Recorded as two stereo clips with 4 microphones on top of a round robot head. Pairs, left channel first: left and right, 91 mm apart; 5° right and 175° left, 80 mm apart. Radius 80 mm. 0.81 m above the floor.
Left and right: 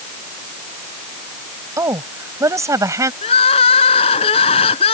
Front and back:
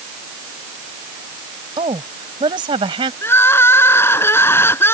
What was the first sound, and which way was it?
A woman speaking, 150° right.